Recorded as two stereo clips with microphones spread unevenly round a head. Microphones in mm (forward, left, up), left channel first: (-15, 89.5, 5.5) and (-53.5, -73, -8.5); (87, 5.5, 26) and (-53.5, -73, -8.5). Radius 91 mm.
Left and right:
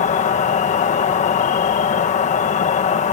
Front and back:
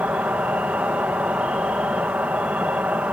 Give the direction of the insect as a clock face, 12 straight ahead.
8 o'clock.